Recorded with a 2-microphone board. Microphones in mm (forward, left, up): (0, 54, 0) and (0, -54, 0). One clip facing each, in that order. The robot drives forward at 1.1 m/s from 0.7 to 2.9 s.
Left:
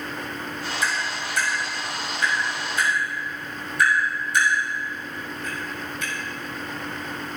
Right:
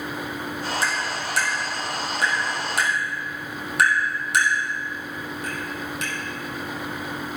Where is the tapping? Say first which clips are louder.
Right 1 dB; 70° right (ahead or behind), 4.5 m; by 6.1 s 80° right, 4 m.